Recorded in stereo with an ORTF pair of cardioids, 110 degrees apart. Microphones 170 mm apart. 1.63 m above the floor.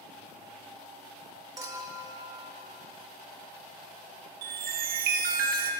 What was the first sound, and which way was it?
A clink, 25° right.